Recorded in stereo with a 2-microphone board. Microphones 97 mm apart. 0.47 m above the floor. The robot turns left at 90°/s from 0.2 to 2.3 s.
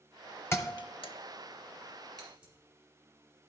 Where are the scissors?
45° right (ahead or behind), 3.5 m; by 2.5 s 55° right (ahead or behind), 3.5 m.